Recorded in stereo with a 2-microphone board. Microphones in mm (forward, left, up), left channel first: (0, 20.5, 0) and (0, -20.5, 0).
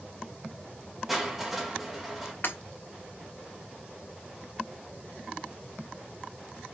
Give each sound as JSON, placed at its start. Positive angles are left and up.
{"t": 1.1, "sound": "crushing", "side_deg": -5, "distance_m": 2.0}
{"t": 2.4, "sound": "breaking glass", "side_deg": 55, "distance_m": 2.5}